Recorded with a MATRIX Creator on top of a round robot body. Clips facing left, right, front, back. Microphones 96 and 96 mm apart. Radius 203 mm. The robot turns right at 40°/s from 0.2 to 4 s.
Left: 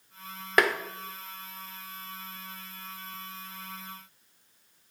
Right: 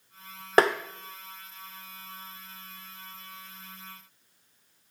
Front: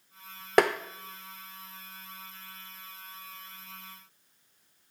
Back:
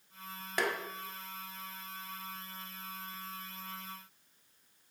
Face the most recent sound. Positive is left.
turn(degrees=105)